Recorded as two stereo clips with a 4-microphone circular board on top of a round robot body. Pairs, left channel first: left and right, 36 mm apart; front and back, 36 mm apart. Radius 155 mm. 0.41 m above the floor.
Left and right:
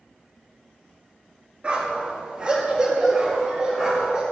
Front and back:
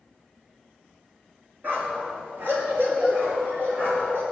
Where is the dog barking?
155° right, 3 m; by 4.2 s 170° right, 6 m.